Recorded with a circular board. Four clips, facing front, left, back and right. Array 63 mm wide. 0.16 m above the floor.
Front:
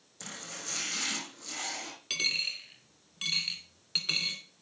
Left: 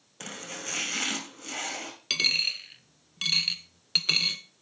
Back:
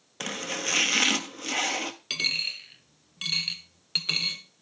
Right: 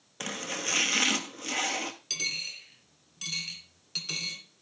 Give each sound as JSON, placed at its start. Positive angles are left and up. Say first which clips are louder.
{"t": 0.2, "sound": "chopping", "louder": "right 4 dB, back 12 dB", "azimuth_deg": -155, "distance_m": 0.9}
{"t": 2.1, "sound": "a dropped coin", "louder": "left 6 dB, front 2 dB", "azimuth_deg": 110, "distance_m": 1.0}